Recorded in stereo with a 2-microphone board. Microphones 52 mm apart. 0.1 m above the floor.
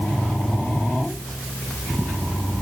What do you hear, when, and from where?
Only background noise.